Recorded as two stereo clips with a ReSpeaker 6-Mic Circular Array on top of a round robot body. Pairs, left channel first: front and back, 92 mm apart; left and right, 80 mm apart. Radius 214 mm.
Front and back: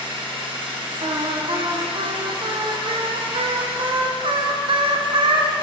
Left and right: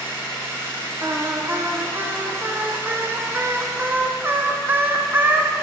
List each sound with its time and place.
0.0 s an engine running: 150° right, 3 m
1.0 s singing: 155° right, 0.9 m